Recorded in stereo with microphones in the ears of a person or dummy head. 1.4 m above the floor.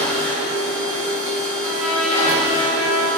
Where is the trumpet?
5° right (ahead or behind), 1.4 m.